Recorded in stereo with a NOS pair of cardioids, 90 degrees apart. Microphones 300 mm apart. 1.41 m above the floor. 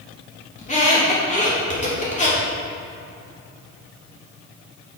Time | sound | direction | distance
0.6 | a squeak | 25° left | 3 m